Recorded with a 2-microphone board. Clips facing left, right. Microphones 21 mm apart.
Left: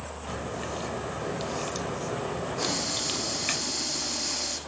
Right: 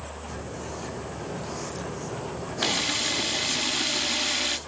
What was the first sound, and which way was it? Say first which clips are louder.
A crack: left 4 dB; 85° left.